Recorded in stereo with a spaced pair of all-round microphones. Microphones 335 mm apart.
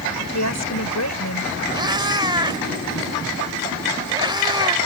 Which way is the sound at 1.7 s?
15° right (ahead or behind).